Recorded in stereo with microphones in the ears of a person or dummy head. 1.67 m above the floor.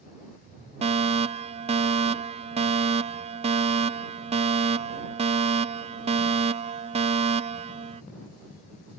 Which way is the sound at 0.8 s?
30° right (ahead or behind).